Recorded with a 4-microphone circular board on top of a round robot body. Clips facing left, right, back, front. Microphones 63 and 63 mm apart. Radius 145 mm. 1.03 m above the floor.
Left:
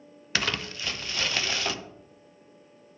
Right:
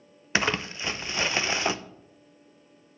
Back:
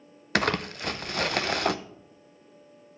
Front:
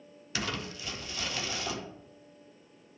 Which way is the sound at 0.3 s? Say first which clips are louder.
Right 3 dB, back 10 dB; 155° right.